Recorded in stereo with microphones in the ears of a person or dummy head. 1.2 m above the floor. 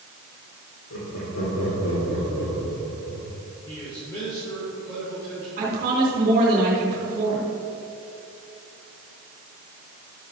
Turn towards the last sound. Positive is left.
turn(degrees=-45)  # may be behind; listen again after turning